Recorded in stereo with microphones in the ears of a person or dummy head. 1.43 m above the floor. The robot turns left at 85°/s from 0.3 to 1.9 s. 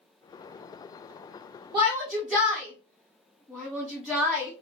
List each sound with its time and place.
1.7 s a shout: 15° right (ahead or behind), 0.5 m; by 4.5 s 5° right (ahead or behind), 0.5 m